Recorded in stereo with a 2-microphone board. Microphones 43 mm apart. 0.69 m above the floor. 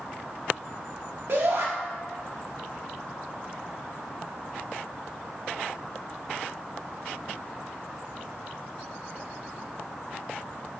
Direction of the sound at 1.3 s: 55° right (ahead or behind).